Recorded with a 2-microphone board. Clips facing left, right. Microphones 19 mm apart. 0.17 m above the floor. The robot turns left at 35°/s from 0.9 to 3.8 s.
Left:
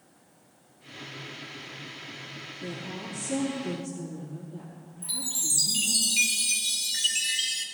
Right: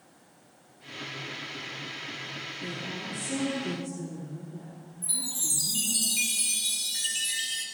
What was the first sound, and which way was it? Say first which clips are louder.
A woman speaking: left 1 dB; 140° left.